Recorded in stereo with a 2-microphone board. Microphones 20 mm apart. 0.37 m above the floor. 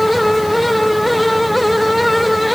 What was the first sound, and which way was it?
Only background noise.